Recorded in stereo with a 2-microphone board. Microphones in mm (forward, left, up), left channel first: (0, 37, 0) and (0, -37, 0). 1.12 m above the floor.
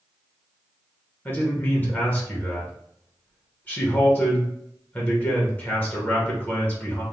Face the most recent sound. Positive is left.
turn(degrees=25)  # may be behind; listen again after turning